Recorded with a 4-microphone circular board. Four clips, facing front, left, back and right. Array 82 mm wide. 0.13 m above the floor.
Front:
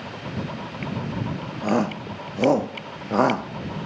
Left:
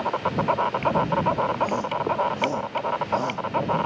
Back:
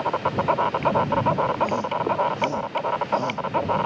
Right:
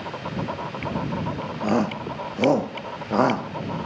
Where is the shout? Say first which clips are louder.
Right 1 dB, back 1 dB; 40° right.